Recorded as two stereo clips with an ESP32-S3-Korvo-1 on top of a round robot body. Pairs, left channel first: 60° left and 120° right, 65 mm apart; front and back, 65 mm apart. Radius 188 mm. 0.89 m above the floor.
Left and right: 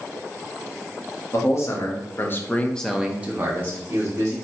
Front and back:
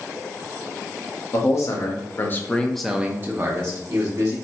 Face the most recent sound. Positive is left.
turn(degrees=-160)